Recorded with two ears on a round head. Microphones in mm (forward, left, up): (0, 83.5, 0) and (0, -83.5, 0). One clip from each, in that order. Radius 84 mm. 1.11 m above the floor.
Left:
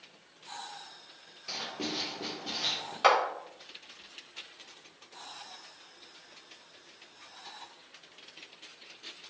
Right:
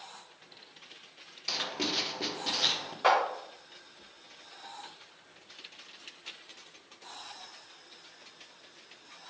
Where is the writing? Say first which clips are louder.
Right 4 dB; 45° right (ahead or behind), 0.7 m.